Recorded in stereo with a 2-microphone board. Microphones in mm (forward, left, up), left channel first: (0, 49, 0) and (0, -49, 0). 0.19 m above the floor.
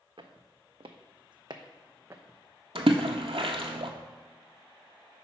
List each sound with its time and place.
0.2 s footsteps: 70° right (ahead or behind), 0.9 m; by 2.4 s 25° right (ahead or behind), 0.9 m
2.8 s a splash: 85° right, 0.8 m